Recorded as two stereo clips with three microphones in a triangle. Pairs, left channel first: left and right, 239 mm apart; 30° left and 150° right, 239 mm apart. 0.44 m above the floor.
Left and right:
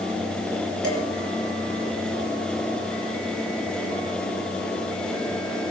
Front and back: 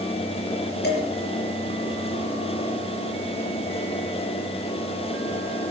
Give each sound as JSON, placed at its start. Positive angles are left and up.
{"t": 0.8, "sound": "dishes clattering", "azimuth_deg": 75, "distance_m": 5.0}